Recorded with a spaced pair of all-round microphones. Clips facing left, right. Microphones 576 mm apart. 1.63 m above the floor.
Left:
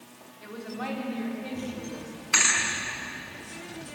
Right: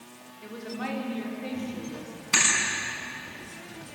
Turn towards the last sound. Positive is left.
turn(degrees=-55)  # may be behind; listen again after turning